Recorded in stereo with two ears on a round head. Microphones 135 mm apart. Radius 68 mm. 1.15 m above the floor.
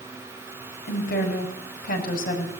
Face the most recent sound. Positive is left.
turn(degrees=65)  # may be behind; listen again after turning